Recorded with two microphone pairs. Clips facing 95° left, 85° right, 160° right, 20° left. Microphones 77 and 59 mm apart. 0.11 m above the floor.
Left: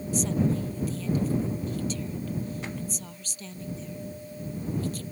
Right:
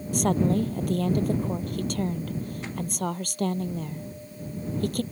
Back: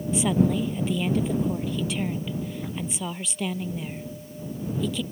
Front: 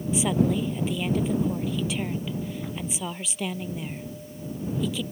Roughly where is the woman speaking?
Right.